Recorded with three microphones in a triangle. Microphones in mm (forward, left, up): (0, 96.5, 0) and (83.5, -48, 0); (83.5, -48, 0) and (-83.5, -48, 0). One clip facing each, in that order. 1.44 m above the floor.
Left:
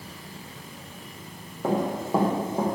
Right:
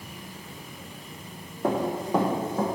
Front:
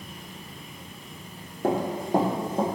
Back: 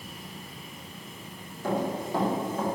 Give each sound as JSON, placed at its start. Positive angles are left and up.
{"t": 1.6, "sound": "running footsteps", "azimuth_deg": 25, "distance_m": 3.5}